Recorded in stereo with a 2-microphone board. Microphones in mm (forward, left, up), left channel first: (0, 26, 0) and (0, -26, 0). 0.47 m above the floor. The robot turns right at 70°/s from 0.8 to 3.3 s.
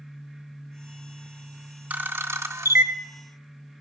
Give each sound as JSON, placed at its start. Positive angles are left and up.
{"t": 1.9, "sound": "a camera shutter", "side_deg": -30, "distance_m": 0.5}